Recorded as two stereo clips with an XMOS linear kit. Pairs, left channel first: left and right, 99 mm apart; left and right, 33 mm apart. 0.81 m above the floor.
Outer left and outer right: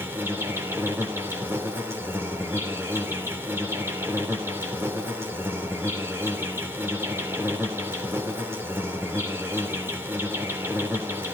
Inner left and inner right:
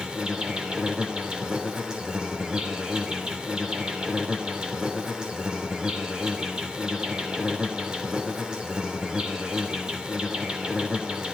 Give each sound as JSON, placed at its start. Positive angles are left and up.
{"t": 0.0, "sound": "an insect", "side_deg": -25, "distance_m": 3.0}